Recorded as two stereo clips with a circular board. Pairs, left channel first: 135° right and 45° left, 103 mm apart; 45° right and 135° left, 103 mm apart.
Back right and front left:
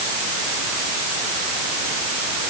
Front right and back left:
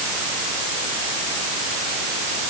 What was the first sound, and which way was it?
Only background noise.